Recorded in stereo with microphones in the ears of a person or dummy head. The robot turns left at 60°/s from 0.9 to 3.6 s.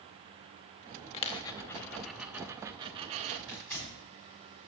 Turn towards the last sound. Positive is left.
turn(degrees=10)  # may be behind; listen again after turning